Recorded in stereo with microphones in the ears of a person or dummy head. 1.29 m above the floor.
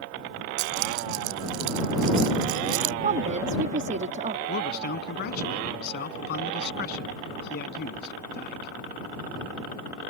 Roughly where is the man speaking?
Left.